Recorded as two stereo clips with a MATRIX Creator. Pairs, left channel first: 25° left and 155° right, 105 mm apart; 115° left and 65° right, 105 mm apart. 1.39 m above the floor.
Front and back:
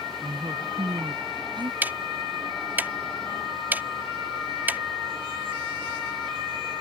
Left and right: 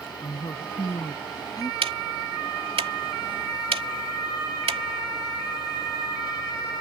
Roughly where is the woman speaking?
Behind.